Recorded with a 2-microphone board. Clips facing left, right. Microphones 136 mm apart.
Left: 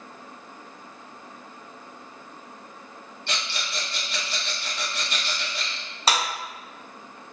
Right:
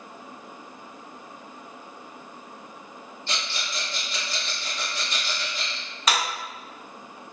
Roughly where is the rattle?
Left.